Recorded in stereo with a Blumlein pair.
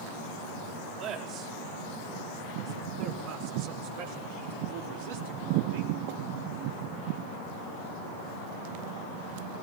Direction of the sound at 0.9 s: 35° right.